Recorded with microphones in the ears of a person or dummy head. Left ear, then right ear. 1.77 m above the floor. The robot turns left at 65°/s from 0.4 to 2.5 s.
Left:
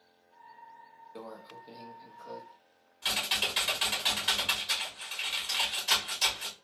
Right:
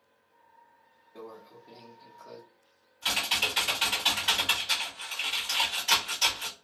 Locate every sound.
1.1 s a microwave: 70° left, 0.9 m; by 2.4 s 10° right, 0.9 m
3.0 s typing on a keyboard: 15° left (ahead or behind), 1.5 m